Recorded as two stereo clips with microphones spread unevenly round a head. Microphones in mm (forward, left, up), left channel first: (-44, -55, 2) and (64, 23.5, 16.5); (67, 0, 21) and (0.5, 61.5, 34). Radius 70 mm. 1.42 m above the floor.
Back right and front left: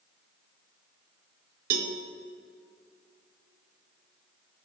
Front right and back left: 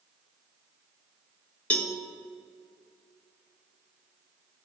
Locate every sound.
1.7 s a cowbell: 35° left, 1.1 m